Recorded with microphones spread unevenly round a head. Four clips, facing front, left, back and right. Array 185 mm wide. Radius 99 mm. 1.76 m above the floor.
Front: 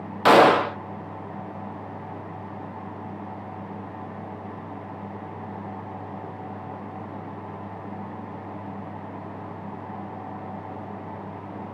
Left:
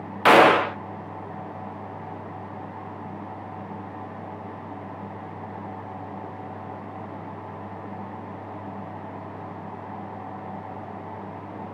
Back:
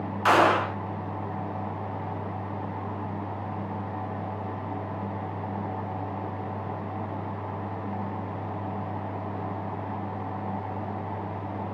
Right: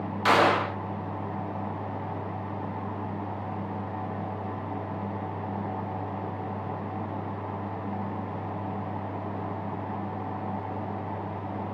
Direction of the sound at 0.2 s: 30° left.